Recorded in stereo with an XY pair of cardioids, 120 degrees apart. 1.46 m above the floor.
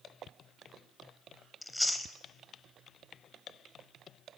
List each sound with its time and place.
1.6 s chewing: 10° left, 0.5 m